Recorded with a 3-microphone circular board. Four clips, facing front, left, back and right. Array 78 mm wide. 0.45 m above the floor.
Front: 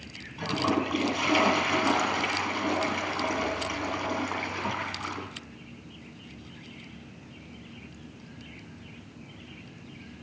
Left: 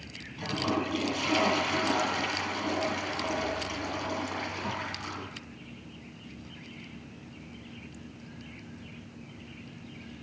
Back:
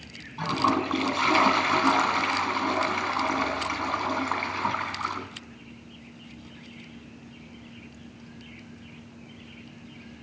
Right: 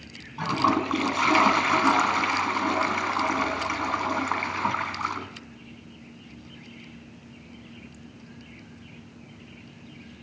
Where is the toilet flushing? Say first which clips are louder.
Right 7 dB, back 3 dB; 125° right, 2.5 m.